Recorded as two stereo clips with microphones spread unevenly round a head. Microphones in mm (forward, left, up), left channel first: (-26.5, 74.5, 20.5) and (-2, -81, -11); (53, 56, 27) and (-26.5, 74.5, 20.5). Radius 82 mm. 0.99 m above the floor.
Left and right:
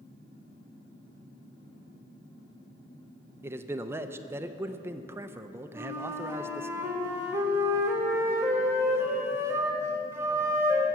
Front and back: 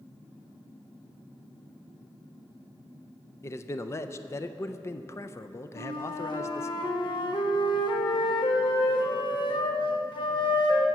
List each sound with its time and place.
3.4 s a man speaking: 40° right, 0.5 m
5.8 s a flute: 10° right, 1.2 m